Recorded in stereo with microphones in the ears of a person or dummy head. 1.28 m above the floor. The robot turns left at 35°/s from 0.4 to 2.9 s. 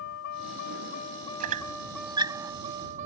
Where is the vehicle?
75° left (ahead or behind); by 3.1 s 35° right (ahead or behind).